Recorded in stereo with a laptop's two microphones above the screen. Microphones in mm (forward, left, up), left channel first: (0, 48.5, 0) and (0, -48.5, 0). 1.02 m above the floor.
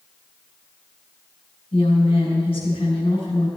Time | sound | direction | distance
1.7 | a woman speaking | 75° left (ahead or behind) | 4 m